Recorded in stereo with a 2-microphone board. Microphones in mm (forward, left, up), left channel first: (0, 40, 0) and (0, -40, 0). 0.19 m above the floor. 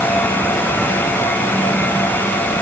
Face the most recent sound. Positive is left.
No sound to turn to.